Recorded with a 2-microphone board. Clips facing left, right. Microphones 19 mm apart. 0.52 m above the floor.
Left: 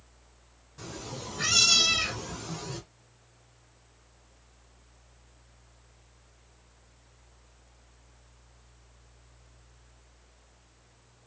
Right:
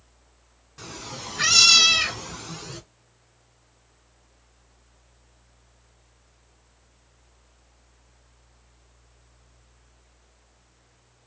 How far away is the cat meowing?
About 0.8 m.